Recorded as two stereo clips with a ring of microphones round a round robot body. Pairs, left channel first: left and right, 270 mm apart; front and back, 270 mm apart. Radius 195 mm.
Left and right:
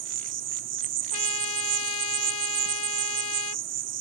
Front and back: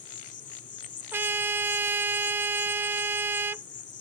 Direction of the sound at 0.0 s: 60° right.